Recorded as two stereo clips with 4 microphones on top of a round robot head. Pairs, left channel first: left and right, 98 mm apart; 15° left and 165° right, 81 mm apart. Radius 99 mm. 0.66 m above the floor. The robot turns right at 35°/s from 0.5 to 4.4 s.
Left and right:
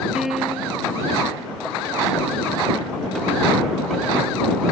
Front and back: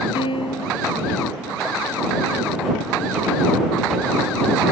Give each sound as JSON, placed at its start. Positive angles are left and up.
{"t": 0.1, "sound": "a piano", "azimuth_deg": -5}